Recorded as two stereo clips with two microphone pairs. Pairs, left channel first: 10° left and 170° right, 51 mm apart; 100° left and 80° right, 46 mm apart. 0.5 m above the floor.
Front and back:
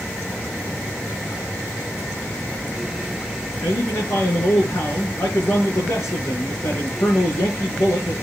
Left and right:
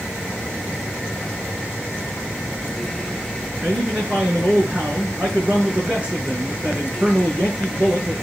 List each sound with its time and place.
3.6 s a man speaking: 15° right, 6.5 m